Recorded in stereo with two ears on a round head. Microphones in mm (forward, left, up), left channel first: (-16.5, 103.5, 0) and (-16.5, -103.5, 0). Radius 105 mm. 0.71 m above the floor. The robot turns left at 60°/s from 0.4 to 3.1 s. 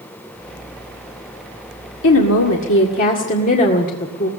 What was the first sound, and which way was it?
A woman speaking, 105° left.